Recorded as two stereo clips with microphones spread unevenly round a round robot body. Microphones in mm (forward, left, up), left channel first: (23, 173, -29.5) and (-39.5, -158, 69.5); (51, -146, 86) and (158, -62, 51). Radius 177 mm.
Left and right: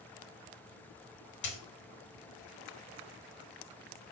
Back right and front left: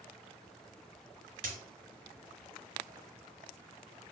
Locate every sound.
1.4 s a dropped coin: 40° left, 1.2 m